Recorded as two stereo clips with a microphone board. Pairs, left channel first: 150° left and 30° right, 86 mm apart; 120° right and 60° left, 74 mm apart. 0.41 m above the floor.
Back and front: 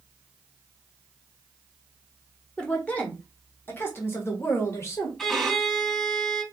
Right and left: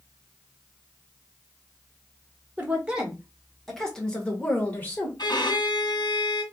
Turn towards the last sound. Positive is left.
turn(degrees=-125)